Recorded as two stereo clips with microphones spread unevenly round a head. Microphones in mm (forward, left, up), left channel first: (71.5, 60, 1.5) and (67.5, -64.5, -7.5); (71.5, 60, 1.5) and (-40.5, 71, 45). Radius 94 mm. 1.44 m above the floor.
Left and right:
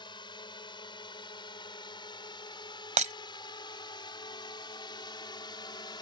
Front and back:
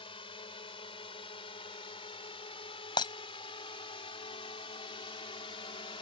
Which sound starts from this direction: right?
Breaking glass, at 3.0 s.